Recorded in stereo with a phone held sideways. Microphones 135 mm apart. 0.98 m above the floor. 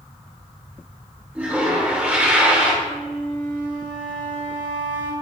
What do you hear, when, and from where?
1.4 s a toilet flushing: 10° right (ahead or behind), 1.9 m
2.8 s a flute: 75° right (ahead or behind), 1.6 m